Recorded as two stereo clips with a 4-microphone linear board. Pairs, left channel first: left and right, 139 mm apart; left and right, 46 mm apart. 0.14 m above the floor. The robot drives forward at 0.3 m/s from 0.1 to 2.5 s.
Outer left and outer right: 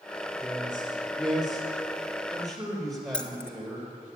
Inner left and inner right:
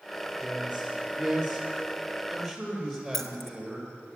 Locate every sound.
0.4 s a man speaking: centre (ahead or behind), 3.5 m
3.1 s keys jangling: 5° left (ahead or behind), 1.1 m